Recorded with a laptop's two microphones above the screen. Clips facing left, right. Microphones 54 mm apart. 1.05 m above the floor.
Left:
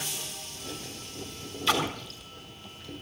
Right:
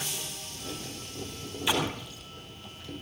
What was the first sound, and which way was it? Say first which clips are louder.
A splash: left 2 dB; 15° right (ahead or behind).